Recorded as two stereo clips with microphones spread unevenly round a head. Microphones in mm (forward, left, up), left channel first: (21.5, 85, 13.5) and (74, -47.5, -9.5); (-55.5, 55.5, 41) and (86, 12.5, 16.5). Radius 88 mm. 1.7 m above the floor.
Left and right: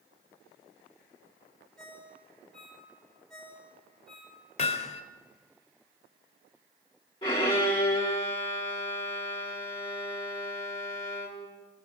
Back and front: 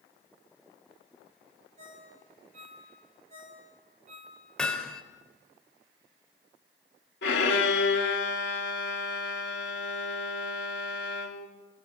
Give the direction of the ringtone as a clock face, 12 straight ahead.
11 o'clock.